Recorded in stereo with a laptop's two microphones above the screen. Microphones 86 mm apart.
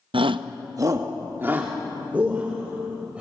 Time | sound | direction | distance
0.1 | a shout | 80° right | 0.6 m